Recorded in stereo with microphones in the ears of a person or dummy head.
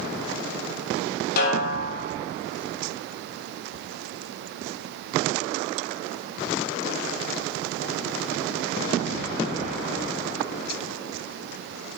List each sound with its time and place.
1.4 s a snare drum: 50° left (ahead or behind), 1.0 m